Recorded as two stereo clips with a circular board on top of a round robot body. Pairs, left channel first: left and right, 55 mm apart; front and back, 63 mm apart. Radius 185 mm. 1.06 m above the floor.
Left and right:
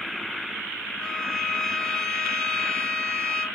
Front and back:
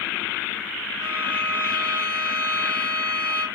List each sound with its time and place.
1.0 s a violin: 165° left, 0.7 m